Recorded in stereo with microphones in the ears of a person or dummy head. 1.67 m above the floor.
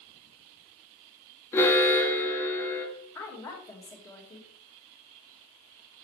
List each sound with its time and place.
1.5 s an alarm: 15° left (ahead or behind), 1.2 m
3.1 s a woman speaking: 20° left (ahead or behind), 1.7 m